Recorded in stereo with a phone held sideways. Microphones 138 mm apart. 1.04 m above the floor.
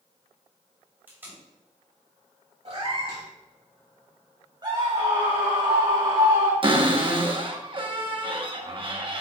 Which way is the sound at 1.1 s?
15° right (ahead or behind).